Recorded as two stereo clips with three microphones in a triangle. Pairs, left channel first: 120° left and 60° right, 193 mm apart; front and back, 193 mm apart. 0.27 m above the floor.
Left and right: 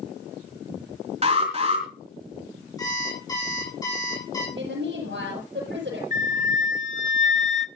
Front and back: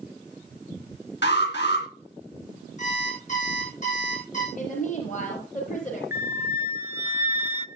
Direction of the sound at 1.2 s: 5° right.